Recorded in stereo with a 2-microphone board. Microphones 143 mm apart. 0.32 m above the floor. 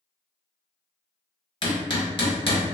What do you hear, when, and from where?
1.6 s hammering: 40° left (ahead or behind), 0.8 m